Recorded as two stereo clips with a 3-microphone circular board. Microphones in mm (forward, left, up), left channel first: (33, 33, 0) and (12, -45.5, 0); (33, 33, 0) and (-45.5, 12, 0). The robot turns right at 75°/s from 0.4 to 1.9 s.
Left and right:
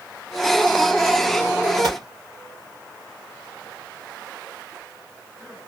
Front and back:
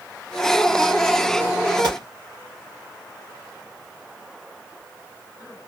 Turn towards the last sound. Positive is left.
turn(degrees=-130)